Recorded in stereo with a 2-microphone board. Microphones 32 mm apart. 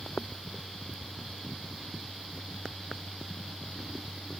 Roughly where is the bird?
No bird in this recording.